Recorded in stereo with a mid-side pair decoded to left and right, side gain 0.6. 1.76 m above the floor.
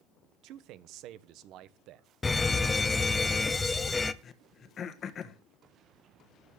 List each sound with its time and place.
0.4 s a man speaking: 65° right, 1.3 m
2.2 s a fire alarm: 20° left, 1.1 m
4.2 s throat clearing: 40° left, 1.5 m